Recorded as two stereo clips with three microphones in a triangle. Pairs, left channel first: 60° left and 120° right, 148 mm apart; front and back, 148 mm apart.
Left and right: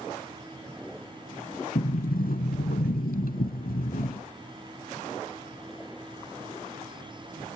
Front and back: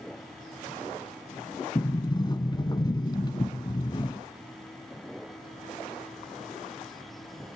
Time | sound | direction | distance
1.8 | a sliding door | 60° left | 0.7 m